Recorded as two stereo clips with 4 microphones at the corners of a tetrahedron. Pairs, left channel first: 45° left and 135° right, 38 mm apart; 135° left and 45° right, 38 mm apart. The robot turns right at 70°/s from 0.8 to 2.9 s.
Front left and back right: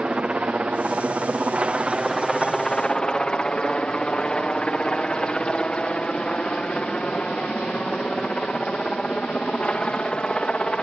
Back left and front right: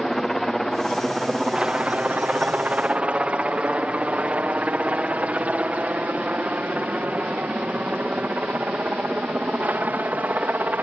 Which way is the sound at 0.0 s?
150° right.